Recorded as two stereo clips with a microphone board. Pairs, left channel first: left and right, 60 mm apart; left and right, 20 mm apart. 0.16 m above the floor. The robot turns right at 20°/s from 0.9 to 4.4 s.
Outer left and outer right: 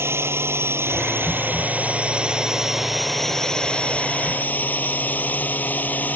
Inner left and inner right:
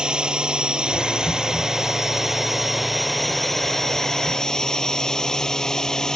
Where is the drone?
40° right; by 6.2 s 30° left.